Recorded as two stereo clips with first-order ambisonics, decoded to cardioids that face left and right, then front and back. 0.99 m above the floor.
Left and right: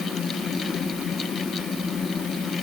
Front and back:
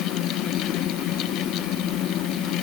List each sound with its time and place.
Only background noise.